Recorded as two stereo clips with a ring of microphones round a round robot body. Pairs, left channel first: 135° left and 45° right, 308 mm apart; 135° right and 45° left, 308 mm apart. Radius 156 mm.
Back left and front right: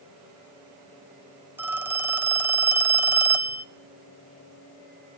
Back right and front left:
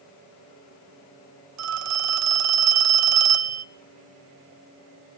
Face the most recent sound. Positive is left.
turn(degrees=40)